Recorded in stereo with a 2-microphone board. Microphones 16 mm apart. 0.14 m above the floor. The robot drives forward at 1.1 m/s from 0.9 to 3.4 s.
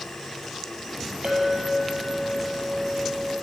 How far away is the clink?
About 2 m.